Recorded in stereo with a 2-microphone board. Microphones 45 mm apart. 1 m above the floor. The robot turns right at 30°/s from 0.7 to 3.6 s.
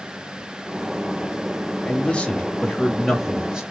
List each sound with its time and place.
1.9 s a man speaking: 150° left, 1.5 m; by 3.6 s 160° right, 1.5 m